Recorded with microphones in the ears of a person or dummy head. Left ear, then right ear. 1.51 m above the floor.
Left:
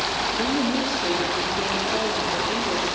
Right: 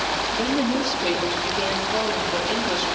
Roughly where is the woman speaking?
Right.